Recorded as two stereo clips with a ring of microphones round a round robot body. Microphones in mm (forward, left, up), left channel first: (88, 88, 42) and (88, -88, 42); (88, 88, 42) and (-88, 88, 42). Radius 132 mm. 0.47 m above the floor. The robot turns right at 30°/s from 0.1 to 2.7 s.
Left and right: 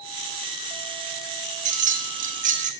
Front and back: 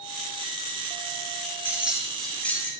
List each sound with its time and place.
1.6 s keys jangling: 105° right, 0.6 m; by 2.7 s 75° right, 0.6 m